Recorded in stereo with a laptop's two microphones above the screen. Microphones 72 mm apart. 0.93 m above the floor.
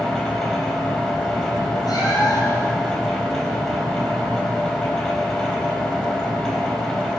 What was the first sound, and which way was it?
A machine running, 5° left (ahead or behind).